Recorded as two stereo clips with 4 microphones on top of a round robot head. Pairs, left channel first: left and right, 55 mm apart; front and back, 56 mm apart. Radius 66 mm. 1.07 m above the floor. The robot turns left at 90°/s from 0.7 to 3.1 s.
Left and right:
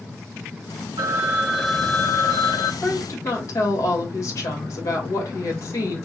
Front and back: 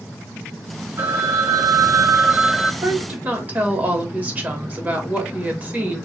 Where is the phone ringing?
115° right, 0.5 m; by 2.7 s 90° left, 0.5 m.